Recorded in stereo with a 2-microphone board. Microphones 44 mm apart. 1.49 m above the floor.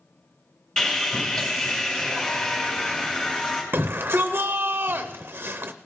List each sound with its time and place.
0.8 s sawing: 20° left (ahead or behind), 3.5 m
3.7 s a shout: 50° right (ahead or behind), 0.5 m